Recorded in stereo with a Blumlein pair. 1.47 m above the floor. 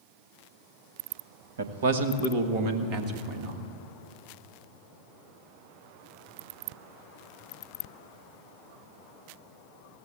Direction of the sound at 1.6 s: 65° right.